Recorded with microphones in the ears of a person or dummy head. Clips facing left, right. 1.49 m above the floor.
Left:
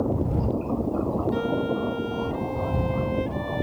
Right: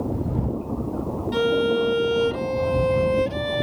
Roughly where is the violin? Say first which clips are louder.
Right 5 dB; right.